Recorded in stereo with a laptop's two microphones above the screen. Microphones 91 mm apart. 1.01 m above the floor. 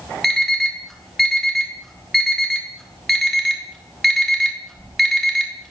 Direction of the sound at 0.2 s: Centre (ahead or behind).